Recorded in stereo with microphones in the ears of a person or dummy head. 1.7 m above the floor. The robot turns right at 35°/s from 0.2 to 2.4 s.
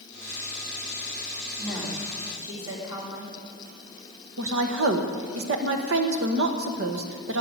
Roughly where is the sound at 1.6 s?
Centre.